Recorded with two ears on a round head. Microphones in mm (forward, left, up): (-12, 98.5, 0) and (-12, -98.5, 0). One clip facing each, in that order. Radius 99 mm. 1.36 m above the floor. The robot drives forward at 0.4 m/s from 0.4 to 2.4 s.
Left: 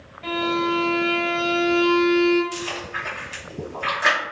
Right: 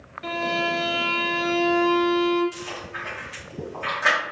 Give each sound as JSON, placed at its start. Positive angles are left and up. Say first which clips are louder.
{"t": 0.2, "sound": "a violin", "louder": "left 4 dB", "side_deg": -20, "distance_m": 0.8}
{"t": 2.5, "sound": "chewing", "louder": "left 5 dB", "side_deg": 15, "distance_m": 1.2}